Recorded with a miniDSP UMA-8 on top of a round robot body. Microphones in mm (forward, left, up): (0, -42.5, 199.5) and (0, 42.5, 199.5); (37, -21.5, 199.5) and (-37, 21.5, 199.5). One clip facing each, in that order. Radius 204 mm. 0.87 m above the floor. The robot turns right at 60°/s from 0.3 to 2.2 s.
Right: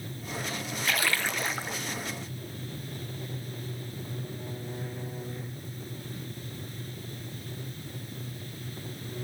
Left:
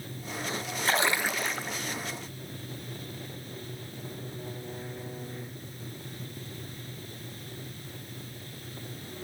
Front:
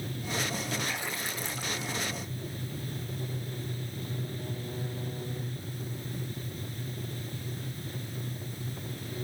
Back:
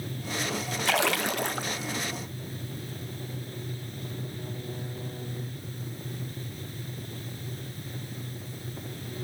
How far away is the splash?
About 0.7 m.